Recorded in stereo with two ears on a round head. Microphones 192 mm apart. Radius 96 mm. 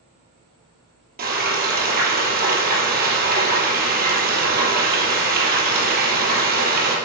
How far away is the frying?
About 3 m.